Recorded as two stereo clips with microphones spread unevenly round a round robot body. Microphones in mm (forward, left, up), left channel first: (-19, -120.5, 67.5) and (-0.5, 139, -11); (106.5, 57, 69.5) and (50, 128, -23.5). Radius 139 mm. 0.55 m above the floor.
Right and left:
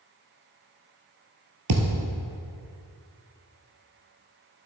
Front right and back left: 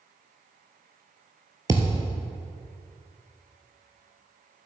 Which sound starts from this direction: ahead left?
A thud, at 1.7 s.